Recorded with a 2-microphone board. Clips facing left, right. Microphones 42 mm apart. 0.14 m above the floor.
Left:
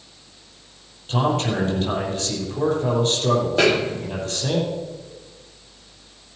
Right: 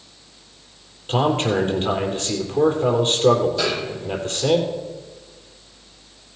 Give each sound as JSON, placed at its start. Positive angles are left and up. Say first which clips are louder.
{"t": 1.1, "sound": "a man speaking", "louder": "right 2 dB", "side_deg": -40, "distance_m": 3.5}
{"t": 3.6, "sound": "a snare drum", "louder": "left 5 dB", "side_deg": 50, "distance_m": 1.2}